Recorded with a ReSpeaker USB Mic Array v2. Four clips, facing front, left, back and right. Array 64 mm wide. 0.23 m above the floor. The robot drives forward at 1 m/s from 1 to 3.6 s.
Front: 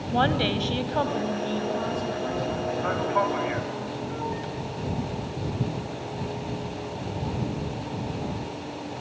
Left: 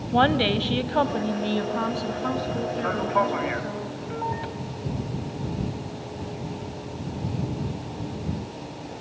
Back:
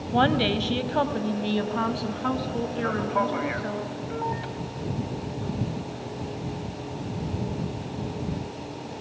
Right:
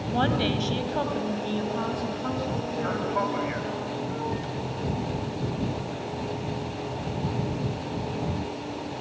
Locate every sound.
0.1 s a woman speaking: 100° left, 1.0 m; by 3.8 s 170° left, 3 m
2.8 s a man speaking: 45° left, 1.3 m; by 4.5 s 125° left, 1.3 m